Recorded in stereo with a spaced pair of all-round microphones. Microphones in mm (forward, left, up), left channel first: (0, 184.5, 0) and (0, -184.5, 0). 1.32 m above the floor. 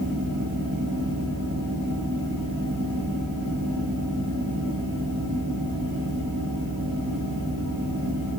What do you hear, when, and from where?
0.0 s a fan: 65° right (ahead or behind), 3 m